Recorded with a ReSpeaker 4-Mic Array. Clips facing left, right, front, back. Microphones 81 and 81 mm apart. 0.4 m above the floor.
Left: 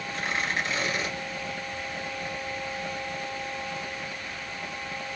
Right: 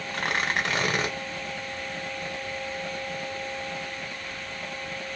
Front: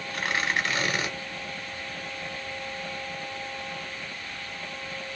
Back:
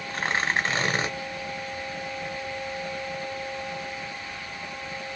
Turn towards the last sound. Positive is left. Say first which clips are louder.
# right 3 dB, back 2 dB
turn(degrees=-120)